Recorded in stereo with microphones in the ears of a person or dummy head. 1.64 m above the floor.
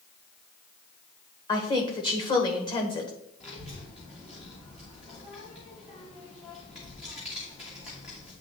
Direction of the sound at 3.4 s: 30° left (ahead or behind).